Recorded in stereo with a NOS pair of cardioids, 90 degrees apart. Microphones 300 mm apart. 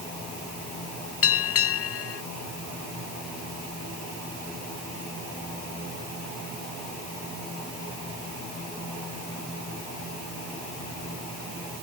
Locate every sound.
1.2 s a bell: 50° left